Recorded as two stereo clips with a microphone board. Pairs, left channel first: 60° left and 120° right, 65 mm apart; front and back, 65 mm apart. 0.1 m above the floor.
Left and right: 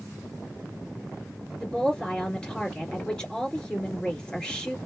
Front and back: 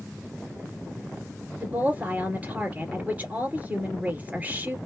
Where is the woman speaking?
130° left, 2 m.